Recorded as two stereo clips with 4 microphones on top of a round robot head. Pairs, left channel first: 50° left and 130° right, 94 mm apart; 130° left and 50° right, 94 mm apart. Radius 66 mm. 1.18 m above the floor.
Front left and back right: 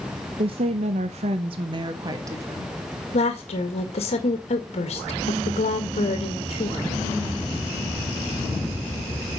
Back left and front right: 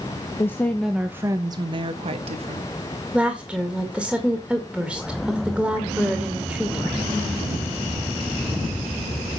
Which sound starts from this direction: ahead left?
A woman speaking, at 3.1 s.